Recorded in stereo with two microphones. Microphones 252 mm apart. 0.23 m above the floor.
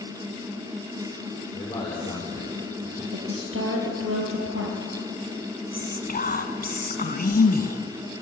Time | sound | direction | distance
1.5 | a man speaking | 15° left (ahead or behind) | 6.5 m
3.1 | a woman speaking | 55° right (ahead or behind) | 5 m
5.7 | whispering | 35° left (ahead or behind) | 1.8 m